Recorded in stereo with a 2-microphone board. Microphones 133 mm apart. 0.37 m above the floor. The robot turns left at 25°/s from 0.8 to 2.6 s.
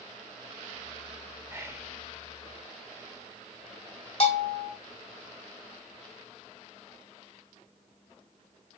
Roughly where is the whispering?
Centre.